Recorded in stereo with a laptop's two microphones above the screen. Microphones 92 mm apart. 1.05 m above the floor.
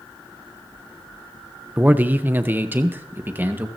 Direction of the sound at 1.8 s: 20° right (ahead or behind).